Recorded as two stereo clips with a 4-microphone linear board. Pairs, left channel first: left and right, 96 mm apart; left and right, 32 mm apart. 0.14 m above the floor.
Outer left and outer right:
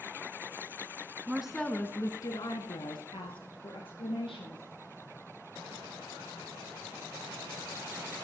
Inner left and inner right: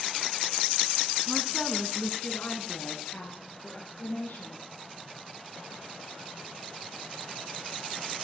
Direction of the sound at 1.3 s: 15° right (ahead or behind).